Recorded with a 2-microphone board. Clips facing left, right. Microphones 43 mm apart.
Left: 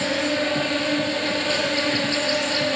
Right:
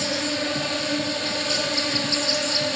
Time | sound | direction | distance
0.0 | an insect | 25° left (ahead or behind) | 1.0 m